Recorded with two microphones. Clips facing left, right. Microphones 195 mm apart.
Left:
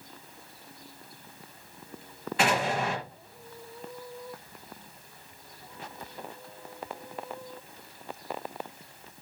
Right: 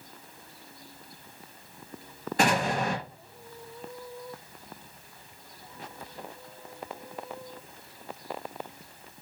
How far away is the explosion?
About 3.5 m.